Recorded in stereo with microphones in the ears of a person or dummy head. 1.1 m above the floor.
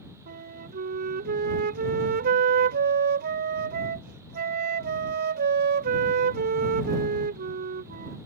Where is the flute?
45° right (ahead or behind).